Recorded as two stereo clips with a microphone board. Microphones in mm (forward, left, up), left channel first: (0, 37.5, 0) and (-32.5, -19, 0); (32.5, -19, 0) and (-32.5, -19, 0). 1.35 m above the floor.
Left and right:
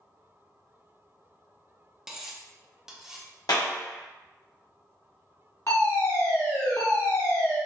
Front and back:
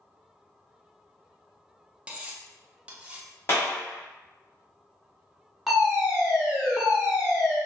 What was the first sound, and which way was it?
Cutlery clinking, 175° left.